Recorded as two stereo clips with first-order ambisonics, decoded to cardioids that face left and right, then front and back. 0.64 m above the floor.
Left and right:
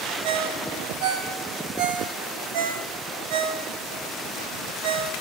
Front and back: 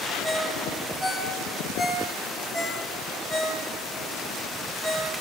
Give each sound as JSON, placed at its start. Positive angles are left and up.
{"t": 0.2, "sound": "a ringtone", "azimuth_deg": -85, "distance_m": 3.0}